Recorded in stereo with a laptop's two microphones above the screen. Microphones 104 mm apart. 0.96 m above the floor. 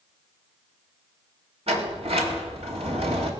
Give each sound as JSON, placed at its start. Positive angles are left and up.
{"t": 1.7, "sound": "a sliding door", "side_deg": -70, "distance_m": 2.5}